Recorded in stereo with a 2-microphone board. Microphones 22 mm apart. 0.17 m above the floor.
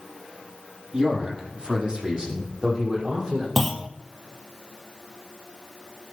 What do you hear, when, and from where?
0.9 s a man speaking: 25° right (ahead or behind), 4.5 m
3.6 s a clunk: 5° left (ahead or behind), 0.9 m